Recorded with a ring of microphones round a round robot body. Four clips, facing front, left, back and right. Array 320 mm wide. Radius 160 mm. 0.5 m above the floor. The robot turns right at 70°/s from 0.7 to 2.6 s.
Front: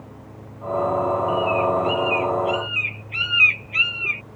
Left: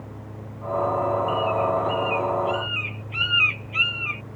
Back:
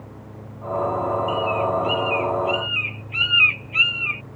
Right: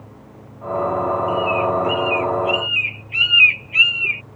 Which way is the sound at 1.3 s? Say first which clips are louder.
Right 3 dB, front 2 dB; 145° right.